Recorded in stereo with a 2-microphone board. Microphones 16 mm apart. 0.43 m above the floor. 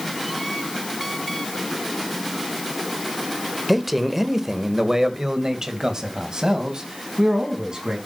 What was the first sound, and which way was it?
A man speaking, 5° right (ahead or behind).